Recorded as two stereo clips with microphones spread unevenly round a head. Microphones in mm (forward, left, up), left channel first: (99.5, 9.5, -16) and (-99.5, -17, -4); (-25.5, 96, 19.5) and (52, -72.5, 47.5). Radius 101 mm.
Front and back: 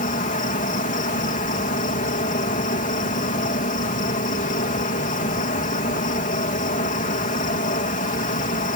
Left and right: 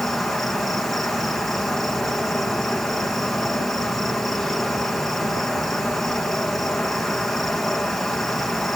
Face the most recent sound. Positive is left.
turn(degrees=35)